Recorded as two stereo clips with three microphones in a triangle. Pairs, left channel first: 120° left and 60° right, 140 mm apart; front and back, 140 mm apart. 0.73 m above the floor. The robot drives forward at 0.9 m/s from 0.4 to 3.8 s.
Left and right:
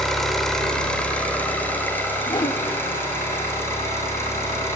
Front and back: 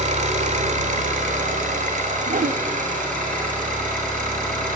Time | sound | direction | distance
0.0 | an engine running | 150° right | 2 m
2.3 | a whoosh | 175° left | 0.6 m